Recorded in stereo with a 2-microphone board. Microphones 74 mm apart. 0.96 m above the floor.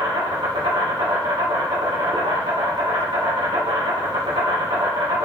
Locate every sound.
0.0 s an insect: 80° right, 0.9 m